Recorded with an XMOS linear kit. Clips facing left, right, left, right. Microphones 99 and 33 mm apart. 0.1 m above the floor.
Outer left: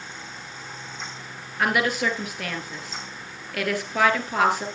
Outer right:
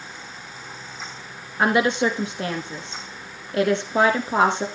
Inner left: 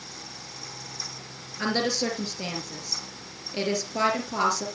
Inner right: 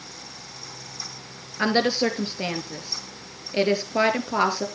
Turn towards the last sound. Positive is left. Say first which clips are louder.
# outer right 4 dB, inner right 5 dB
turn(degrees=-25)  # may be behind; listen again after turning